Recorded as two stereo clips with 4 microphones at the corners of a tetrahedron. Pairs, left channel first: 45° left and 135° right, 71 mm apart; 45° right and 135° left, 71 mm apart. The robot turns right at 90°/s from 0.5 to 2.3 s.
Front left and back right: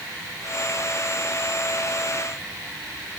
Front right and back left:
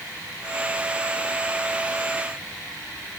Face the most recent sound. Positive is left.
No sound to turn to.